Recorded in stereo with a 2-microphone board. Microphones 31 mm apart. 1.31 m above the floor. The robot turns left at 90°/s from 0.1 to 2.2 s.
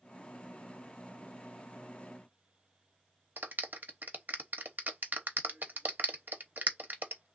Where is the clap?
75° right (ahead or behind), 0.7 m.